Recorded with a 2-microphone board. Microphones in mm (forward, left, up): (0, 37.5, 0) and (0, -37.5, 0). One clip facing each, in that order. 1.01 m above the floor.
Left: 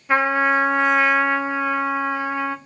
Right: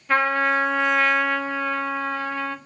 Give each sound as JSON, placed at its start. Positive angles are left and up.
{"t": 0.1, "sound": "a trumpet", "side_deg": 15, "distance_m": 1.3}